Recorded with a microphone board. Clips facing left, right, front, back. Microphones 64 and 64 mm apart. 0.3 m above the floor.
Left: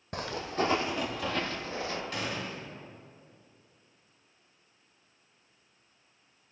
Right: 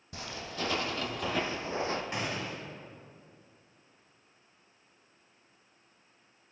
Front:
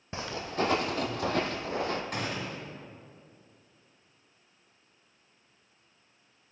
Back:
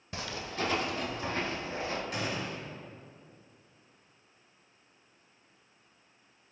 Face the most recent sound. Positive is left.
turn(degrees=-25)